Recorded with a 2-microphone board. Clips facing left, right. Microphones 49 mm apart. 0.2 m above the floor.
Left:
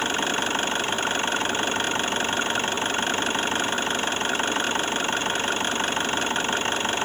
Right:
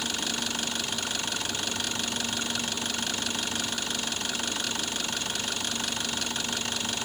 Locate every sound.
0.0 s an engine running: 35° left (ahead or behind)